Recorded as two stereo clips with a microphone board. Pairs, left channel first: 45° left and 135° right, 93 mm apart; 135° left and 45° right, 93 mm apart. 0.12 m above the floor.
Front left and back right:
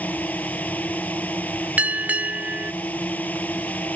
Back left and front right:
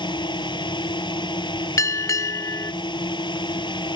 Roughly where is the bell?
Behind.